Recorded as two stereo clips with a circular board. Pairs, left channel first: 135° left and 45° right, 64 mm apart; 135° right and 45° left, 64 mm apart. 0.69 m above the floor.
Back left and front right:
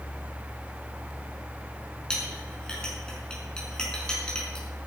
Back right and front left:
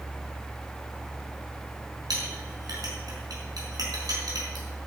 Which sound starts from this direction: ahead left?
A clink, at 2.1 s.